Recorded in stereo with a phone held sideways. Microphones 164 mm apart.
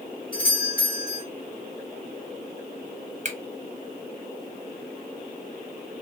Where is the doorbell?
60° left (ahead or behind), 2 m.